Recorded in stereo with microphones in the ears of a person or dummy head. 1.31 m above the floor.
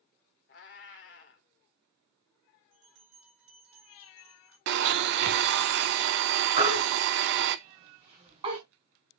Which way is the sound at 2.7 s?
55° right (ahead or behind).